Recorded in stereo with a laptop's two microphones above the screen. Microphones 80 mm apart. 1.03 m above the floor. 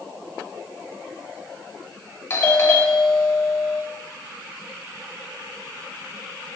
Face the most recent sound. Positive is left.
turn(degrees=30)  # may be behind; listen again after turning